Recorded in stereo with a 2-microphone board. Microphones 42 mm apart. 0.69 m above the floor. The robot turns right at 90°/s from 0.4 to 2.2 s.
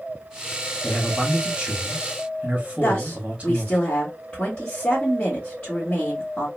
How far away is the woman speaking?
About 1.4 m.